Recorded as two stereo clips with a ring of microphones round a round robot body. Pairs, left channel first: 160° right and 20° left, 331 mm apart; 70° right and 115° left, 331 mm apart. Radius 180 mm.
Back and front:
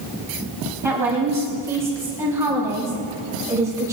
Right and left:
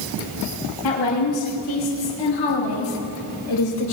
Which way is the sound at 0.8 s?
60° right.